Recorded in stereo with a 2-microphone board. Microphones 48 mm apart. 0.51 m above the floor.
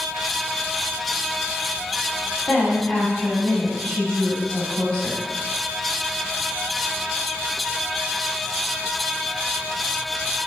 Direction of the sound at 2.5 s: 20° left (ahead or behind).